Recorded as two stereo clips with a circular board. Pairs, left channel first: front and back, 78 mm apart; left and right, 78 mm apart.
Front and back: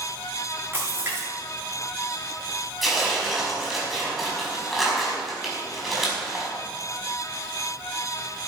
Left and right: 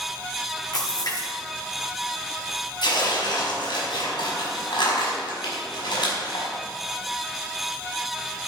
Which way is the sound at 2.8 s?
90° left.